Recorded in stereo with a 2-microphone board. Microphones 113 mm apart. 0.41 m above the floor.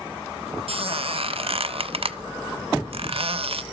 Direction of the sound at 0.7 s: 65° right (ahead or behind).